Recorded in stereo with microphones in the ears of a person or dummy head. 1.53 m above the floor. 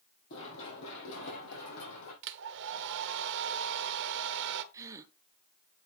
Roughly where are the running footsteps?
Left.